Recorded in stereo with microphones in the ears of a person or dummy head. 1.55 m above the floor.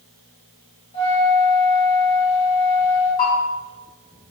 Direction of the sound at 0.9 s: 40° left (ahead or behind).